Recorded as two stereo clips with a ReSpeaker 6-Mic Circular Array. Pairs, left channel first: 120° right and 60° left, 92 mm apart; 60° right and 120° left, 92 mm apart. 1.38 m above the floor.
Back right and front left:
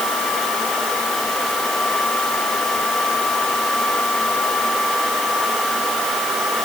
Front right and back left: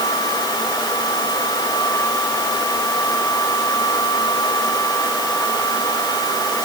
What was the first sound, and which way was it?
Only background noise.